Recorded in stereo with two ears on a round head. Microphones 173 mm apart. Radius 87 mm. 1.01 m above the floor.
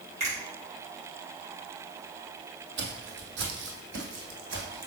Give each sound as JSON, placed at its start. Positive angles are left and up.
{"t": 0.2, "sound": "a finger snap", "side_deg": -35, "distance_m": 4.0}
{"t": 2.8, "sound": "footsteps", "side_deg": -60, "distance_m": 1.9}